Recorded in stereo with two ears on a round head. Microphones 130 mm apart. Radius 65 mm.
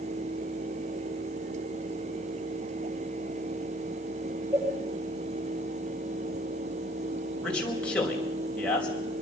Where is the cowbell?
25° right (ahead or behind), 8 m.